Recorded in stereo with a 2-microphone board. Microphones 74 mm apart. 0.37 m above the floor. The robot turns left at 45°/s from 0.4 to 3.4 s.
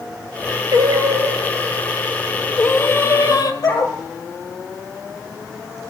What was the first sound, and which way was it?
Singing, 120° right.